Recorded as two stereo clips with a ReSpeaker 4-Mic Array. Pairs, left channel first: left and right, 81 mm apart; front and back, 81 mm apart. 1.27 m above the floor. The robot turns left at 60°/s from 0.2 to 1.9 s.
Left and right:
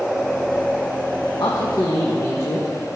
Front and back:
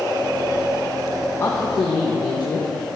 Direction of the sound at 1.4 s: 60° left.